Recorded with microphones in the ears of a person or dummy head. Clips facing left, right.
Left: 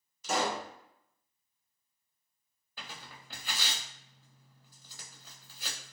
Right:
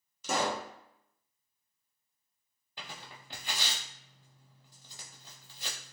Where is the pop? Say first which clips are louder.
Even; 85° right, 1.0 m.